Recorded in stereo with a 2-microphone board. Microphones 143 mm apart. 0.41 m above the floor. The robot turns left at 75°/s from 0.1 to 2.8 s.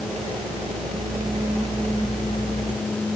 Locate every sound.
Only background noise.